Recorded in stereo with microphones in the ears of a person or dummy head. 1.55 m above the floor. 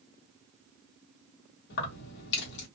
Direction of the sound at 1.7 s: 60° left (ahead or behind).